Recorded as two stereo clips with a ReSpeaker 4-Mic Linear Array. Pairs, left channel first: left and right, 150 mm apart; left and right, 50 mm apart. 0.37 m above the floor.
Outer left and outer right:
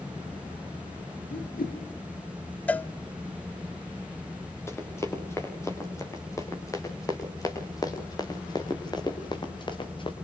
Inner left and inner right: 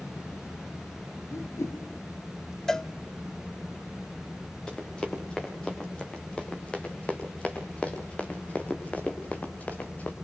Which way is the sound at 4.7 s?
15° left (ahead or behind).